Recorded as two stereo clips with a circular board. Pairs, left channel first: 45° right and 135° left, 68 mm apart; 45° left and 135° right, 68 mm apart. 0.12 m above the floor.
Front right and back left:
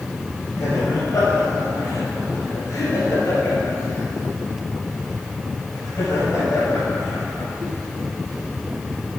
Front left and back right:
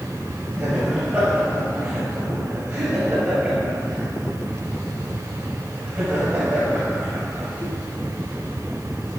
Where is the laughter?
85° right, 2.5 m.